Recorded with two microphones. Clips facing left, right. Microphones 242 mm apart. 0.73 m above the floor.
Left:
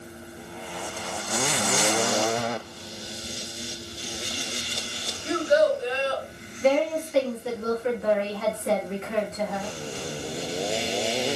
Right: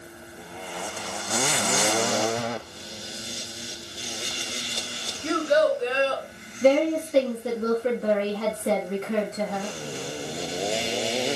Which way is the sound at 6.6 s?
40° right (ahead or behind).